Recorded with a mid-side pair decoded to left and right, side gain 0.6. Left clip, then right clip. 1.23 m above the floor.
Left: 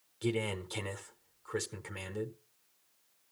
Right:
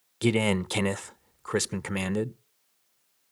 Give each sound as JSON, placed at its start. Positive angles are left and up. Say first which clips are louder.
{"t": 0.2, "sound": "a man speaking", "louder": "right 9 dB", "azimuth_deg": -55, "distance_m": 0.7}